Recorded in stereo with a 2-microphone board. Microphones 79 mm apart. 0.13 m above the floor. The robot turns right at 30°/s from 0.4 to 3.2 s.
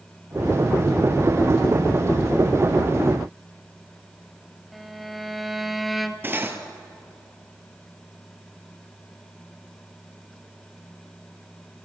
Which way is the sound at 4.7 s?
Centre (ahead or behind).